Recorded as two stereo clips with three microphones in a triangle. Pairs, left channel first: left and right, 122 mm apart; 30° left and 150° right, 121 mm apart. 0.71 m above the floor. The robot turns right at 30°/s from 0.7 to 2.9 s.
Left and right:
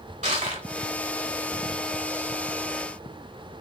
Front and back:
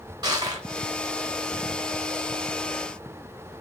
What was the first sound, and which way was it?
Crushing, 95° right.